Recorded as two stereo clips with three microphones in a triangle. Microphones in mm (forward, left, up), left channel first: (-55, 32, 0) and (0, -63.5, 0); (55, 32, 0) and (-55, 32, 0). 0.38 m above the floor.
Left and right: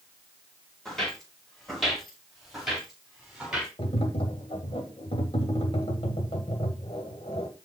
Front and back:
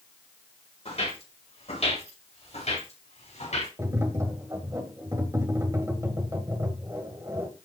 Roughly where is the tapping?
Behind left.